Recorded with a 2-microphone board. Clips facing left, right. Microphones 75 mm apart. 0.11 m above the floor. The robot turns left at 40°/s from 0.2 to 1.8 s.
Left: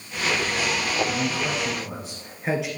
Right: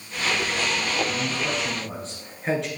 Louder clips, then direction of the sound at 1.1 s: Left 1 dB; 20° left (ahead or behind).